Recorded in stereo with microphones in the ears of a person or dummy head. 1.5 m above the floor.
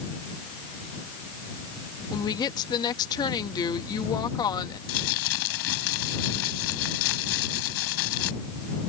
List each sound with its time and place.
2.1 s a woman speaking: 20° left (ahead or behind)
4.9 s crumpling: 80° left